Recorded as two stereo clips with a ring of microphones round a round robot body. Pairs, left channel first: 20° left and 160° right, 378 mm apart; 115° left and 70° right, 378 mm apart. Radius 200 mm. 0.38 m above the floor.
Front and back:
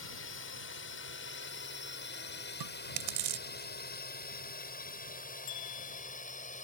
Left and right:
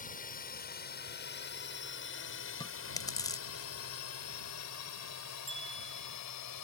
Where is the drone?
55° left; by 6.7 s 90° left.